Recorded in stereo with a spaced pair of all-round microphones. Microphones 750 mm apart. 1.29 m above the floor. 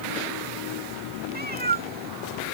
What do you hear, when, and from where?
1.3 s a cat meowing: 10° right (ahead or behind)